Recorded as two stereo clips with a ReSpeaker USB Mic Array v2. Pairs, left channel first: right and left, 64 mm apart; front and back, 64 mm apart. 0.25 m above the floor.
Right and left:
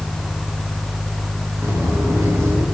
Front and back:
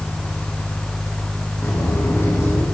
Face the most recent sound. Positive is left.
turn(degrees=45)